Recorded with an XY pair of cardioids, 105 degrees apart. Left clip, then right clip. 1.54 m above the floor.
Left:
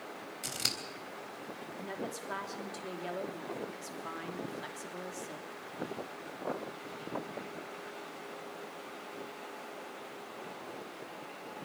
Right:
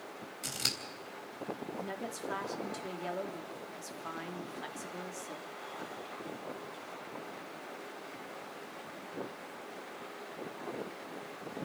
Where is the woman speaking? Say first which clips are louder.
Even; 5° right, 3 m.